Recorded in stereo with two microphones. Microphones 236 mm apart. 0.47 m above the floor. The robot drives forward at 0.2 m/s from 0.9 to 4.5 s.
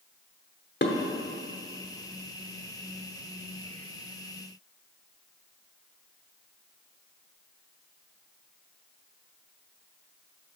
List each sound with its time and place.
0.8 s dishes clattering: 50° left (ahead or behind), 1.0 m